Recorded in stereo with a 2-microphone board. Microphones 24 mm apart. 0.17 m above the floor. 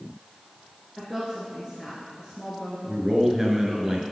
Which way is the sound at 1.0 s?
5° left (ahead or behind).